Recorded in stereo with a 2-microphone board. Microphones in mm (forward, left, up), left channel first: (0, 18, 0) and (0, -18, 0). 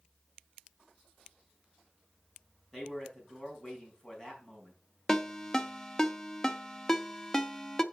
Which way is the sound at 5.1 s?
15° left (ahead or behind).